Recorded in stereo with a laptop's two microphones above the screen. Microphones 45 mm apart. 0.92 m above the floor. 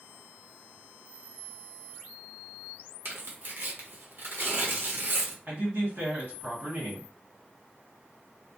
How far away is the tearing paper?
About 1.0 m.